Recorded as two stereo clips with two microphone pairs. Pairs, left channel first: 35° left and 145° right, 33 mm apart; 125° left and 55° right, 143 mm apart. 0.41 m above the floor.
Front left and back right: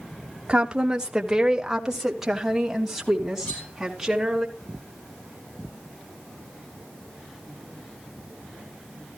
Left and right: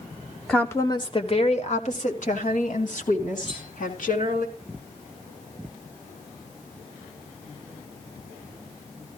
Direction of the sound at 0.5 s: 160° right.